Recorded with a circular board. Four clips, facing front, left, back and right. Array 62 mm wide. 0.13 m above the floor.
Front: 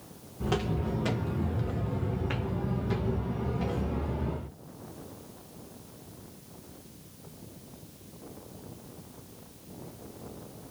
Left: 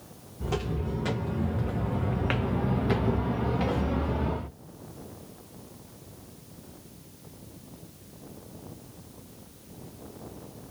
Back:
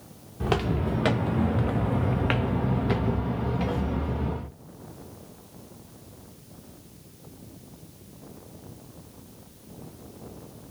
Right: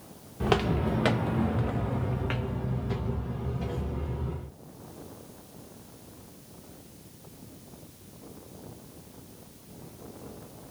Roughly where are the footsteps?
Behind right.